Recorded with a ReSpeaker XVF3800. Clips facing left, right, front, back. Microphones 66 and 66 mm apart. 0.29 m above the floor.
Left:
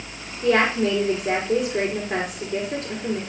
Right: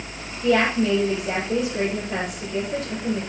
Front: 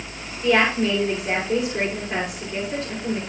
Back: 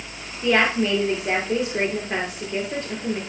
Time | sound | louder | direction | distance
0.4 | a woman speaking | even, front 1 dB | 115° left | 5.5 m